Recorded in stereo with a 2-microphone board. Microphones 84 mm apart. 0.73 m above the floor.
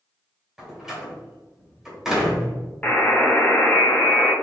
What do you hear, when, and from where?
0.6 s a door slam: 5° right (ahead or behind), 1.5 m
2.8 s a buzzer: 20° left (ahead or behind), 0.9 m